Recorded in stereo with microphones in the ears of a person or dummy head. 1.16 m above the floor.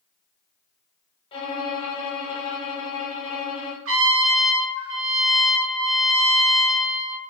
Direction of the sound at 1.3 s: 30° left (ahead or behind).